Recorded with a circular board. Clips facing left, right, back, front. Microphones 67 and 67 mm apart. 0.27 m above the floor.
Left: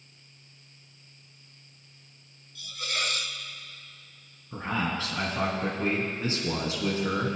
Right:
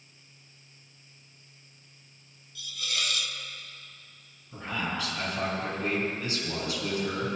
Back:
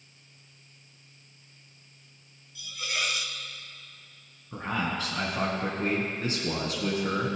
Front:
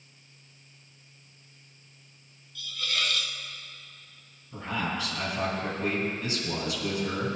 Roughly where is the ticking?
I don't hear ticking.